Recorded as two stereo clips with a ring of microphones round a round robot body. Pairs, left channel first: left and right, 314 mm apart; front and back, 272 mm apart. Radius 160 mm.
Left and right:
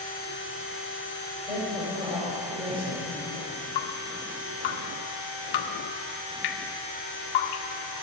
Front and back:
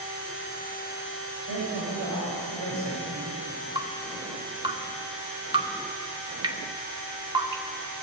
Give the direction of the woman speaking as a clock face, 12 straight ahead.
5 o'clock.